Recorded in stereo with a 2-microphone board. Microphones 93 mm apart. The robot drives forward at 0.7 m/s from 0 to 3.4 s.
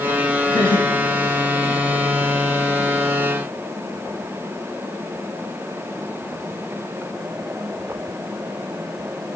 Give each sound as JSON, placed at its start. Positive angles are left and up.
{"t": 0.5, "sound": "laughter", "side_deg": 60, "distance_m": 5.0}